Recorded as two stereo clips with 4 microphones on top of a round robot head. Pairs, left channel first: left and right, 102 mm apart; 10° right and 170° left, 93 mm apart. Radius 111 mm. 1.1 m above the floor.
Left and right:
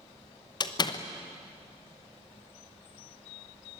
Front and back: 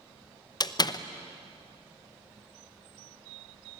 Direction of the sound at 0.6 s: 35° left.